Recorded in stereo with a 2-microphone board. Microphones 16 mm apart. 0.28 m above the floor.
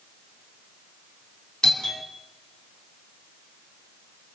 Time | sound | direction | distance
1.6 | a doorbell | 55° left (ahead or behind) | 3.5 m